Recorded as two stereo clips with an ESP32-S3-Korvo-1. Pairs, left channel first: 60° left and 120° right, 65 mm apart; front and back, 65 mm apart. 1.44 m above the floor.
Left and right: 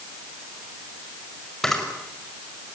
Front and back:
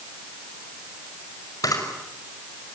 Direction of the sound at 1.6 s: 25° right.